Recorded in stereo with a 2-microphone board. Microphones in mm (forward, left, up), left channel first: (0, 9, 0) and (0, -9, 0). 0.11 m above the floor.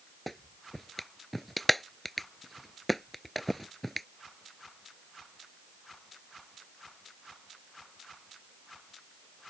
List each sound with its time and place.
0.3 s a clap: 10° left (ahead or behind)